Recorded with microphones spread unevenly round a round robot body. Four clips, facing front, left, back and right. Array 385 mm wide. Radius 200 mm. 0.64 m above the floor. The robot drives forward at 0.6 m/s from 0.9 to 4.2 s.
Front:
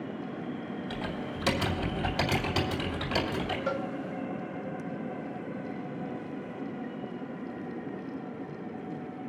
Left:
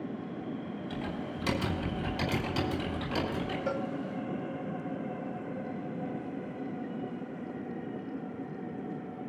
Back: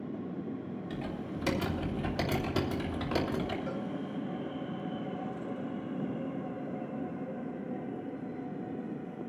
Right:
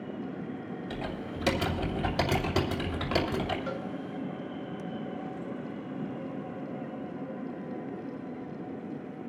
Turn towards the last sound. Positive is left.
turn(degrees=55)